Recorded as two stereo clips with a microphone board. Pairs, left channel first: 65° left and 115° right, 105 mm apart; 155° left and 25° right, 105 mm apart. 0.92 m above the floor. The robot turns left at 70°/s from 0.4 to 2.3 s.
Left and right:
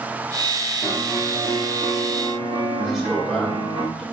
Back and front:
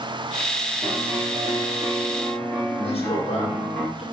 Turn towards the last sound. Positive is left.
turn(degrees=160)